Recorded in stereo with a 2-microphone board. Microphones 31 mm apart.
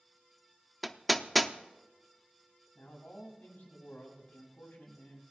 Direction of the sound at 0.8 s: Centre (ahead or behind).